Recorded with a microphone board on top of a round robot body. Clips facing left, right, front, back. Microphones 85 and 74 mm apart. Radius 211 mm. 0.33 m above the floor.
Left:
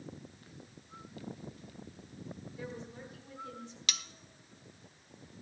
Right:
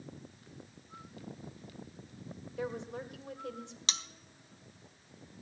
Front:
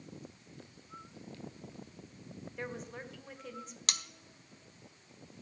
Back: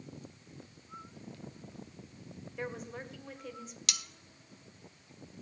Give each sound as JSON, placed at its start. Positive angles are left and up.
{"t": 2.6, "sound": "a woman speaking", "azimuth_deg": -90, "distance_m": 2.0}
{"t": 3.9, "sound": "cutlery clinking", "azimuth_deg": -35, "distance_m": 0.9}